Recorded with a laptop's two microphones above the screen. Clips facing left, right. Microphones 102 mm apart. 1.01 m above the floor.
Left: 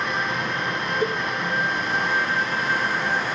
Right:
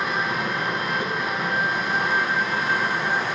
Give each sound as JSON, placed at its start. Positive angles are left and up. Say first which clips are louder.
{"t": 0.0, "sound": "running water", "louder": "right 1 dB", "side_deg": -5, "distance_m": 4.0}
{"t": 1.0, "sound": "a cowbell", "louder": "left 3 dB", "side_deg": 50, "distance_m": 1.5}